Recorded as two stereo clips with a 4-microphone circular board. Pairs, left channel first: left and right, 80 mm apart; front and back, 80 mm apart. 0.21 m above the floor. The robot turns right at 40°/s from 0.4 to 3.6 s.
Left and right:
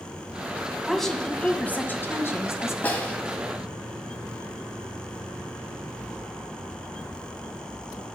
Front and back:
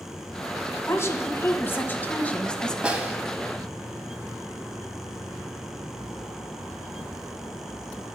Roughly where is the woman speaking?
Ahead.